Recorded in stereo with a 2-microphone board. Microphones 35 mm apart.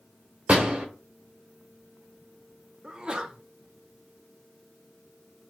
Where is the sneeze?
25° right (ahead or behind), 0.7 m.